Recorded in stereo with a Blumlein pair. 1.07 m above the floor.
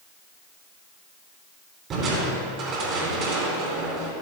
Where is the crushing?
30° right, 3 m.